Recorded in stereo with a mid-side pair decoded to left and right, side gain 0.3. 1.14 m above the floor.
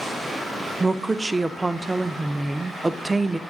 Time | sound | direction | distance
0.8 | a woman speaking | 20° right | 0.5 m